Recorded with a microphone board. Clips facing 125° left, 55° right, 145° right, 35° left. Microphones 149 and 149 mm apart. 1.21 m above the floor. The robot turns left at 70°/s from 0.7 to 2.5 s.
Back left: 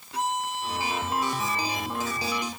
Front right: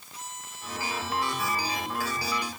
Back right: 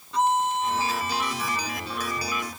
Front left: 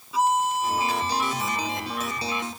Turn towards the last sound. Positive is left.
turn(degrees=-5)